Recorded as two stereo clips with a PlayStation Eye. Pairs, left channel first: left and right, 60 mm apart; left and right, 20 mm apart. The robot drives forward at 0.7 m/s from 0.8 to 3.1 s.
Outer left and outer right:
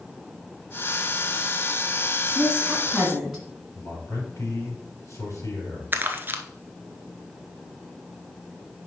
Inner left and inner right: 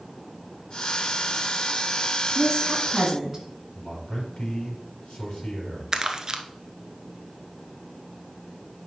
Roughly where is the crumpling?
Right.